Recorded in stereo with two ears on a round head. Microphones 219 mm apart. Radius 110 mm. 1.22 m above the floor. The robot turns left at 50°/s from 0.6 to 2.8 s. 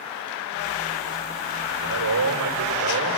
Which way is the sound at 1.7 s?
45° right.